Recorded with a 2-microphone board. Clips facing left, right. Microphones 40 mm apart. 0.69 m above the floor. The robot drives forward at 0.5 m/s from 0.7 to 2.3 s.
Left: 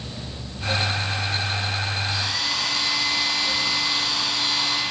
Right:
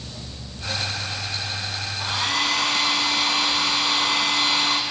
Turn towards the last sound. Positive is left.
turn(degrees=-60)  # may be behind; listen again after turning